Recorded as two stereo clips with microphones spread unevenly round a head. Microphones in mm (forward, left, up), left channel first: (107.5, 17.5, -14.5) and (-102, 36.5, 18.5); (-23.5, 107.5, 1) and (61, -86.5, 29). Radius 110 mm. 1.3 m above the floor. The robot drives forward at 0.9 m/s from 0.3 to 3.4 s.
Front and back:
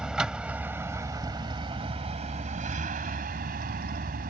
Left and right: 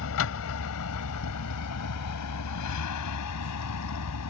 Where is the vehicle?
90° left; by 4.3 s 130° left.